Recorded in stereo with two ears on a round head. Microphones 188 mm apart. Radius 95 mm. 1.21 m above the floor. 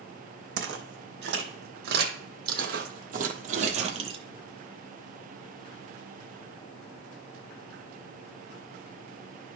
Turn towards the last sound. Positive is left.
turn(degrees=-25)  # may be behind; listen again after turning